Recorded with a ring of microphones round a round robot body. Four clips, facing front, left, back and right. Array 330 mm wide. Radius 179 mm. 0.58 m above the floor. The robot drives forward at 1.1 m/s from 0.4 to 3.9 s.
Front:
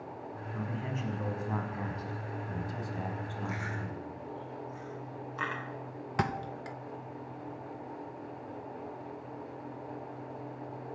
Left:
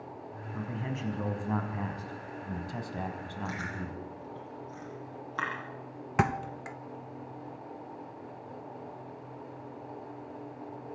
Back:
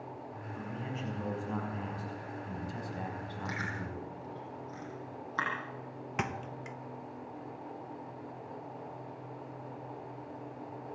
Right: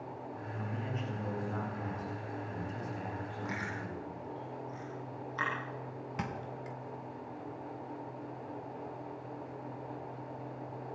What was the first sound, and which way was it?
A man speaking, 65° left.